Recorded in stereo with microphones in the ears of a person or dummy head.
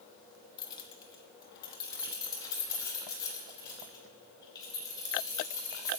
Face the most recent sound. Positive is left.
turn(degrees=20)  # may be behind; listen again after turning